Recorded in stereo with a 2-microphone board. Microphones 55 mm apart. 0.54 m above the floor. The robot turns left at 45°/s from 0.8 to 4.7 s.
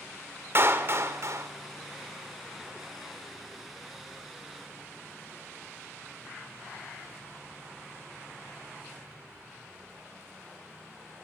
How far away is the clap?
About 1.4 m.